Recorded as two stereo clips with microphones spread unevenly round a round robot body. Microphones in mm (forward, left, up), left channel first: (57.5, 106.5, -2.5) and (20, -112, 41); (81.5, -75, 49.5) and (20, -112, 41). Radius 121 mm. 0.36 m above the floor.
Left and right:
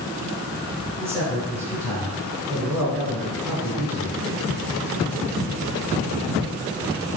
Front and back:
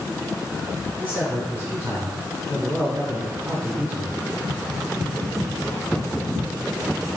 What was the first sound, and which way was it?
A man speaking, 175° left.